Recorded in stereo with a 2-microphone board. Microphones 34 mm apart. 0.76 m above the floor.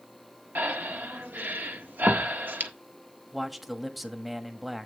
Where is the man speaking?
5° right (ahead or behind), 1.3 m.